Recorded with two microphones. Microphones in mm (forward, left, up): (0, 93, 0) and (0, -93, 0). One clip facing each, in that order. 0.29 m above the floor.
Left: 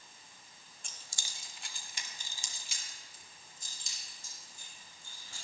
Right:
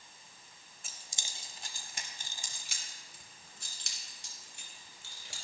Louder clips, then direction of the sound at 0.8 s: Right 2 dB; 5° right (ahead or behind).